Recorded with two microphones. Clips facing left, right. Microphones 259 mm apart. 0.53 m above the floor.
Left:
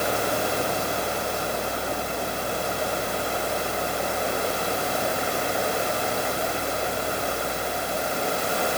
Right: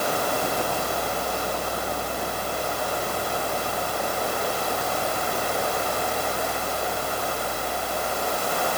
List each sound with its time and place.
Only background noise.